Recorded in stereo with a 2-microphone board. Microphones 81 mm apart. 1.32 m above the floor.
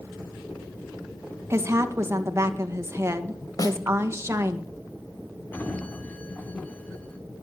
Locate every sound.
1.5 s a woman speaking: 35° right (ahead or behind), 1.8 m
3.6 s a snare drum: 45° left (ahead or behind), 1.6 m
5.5 s a sliding door: 20° left (ahead or behind), 1.5 m